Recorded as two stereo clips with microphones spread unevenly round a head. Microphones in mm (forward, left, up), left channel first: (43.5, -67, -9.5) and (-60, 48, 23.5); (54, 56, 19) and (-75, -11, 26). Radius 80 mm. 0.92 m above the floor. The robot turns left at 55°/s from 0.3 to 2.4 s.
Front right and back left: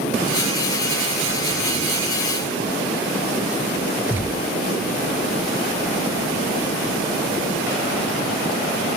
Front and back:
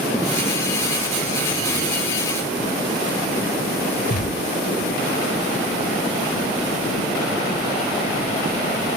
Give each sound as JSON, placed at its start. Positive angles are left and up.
{"t": 4.1, "sound": "a gunshot", "azimuth_deg": 55}